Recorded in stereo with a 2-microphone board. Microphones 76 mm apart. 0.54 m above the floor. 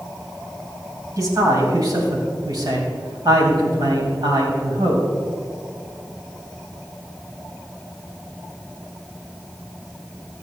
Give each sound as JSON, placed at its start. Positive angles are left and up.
{"t": 1.2, "sound": "a man speaking", "side_deg": -50, "distance_m": 3.5}